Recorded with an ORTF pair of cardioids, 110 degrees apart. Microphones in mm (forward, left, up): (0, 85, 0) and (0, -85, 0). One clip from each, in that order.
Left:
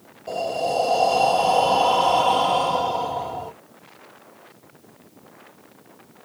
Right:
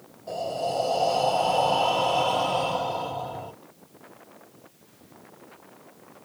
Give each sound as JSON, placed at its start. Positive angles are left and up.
{"t": 0.3, "sound": "breathing", "azimuth_deg": 20, "distance_m": 1.1}